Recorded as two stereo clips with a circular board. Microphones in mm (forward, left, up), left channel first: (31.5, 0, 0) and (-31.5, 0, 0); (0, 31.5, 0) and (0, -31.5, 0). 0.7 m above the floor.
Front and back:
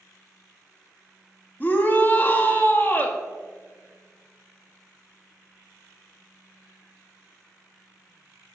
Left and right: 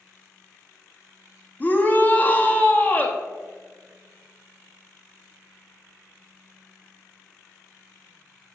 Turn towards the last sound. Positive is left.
turn(degrees=45)